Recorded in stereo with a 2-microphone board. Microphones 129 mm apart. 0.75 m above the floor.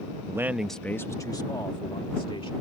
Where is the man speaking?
25° right (ahead or behind); by 2.5 s 45° left (ahead or behind).